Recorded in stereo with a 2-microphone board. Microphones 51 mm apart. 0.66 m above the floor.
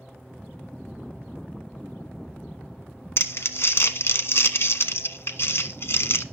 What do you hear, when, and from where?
3.2 s crumpling: 55° left (ahead or behind), 0.9 m